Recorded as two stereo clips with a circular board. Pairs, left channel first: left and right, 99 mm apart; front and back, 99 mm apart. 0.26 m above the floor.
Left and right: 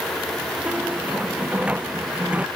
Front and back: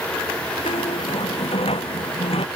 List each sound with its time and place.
0.7 s a squeak: 15° right